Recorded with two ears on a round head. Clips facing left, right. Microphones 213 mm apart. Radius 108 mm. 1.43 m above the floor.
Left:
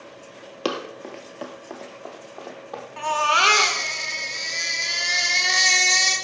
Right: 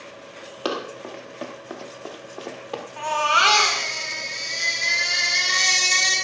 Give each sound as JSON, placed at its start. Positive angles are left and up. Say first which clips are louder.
{"t": 0.7, "sound": "running footsteps", "louder": "even", "side_deg": 30, "distance_m": 1.6}
{"t": 3.0, "sound": "a baby crying", "louder": "left 1 dB", "side_deg": 30, "distance_m": 1.9}